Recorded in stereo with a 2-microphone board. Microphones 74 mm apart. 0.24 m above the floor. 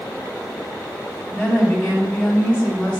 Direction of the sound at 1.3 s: 20° left (ahead or behind).